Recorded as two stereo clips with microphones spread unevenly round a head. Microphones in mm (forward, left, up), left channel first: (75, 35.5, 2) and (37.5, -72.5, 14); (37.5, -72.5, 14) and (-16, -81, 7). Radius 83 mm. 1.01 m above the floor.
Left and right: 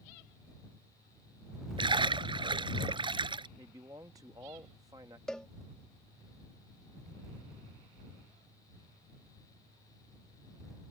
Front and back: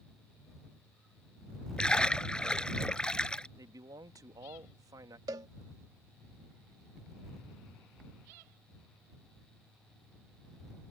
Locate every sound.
1.8 s a splash: 65° right
3.6 s a man speaking: straight behind
5.3 s a cowbell: 160° left